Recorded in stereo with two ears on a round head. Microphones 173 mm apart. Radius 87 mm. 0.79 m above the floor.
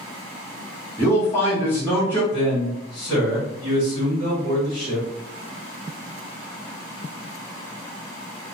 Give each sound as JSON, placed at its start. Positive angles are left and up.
{"t": 1.0, "sound": "a man speaking", "side_deg": 10, "distance_m": 0.9}
{"t": 2.3, "sound": "a man speaking", "side_deg": 10, "distance_m": 1.6}